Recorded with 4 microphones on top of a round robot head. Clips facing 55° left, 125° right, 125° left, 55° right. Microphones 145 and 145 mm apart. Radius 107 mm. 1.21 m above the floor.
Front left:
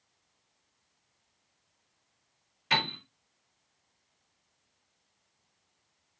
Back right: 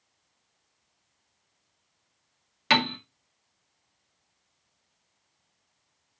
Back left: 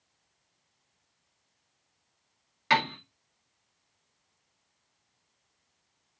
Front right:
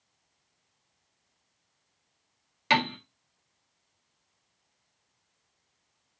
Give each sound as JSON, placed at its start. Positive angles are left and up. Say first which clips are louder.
{"t": 2.7, "sound": "a piano", "louder": "back right 7 dB, even", "azimuth_deg": -125, "distance_m": 1.7}